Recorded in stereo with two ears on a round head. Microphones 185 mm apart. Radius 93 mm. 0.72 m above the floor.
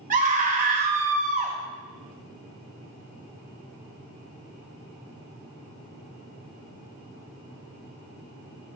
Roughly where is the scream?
Right.